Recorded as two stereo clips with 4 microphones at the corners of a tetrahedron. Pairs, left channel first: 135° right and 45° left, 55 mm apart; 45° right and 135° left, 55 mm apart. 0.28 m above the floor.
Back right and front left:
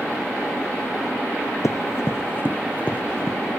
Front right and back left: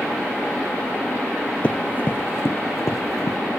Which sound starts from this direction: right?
Running footsteps, at 1.6 s.